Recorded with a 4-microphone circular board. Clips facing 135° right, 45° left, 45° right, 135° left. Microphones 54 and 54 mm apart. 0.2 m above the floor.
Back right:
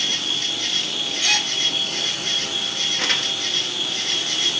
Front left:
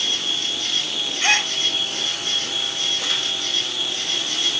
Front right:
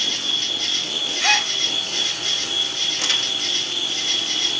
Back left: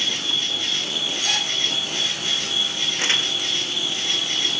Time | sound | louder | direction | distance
0.0 | an insect | even, even | 155° right | 3 m
1.2 | a gasp | front left 4 dB, front right 8 dB | 10° right | 0.5 m
3.0 | crumpling | back right 2 dB, back left 3 dB | 165° right | 0.9 m